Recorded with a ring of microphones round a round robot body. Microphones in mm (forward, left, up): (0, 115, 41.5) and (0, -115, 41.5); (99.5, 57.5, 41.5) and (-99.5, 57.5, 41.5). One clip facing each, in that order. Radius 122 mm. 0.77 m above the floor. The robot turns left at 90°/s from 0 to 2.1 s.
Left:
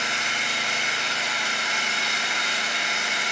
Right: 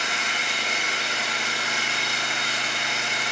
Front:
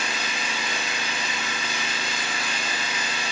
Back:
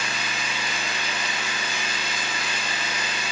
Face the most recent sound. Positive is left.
turn(degrees=110)